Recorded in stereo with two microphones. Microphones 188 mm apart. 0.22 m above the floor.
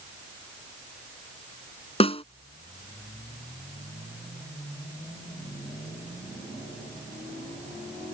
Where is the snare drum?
30° left (ahead or behind).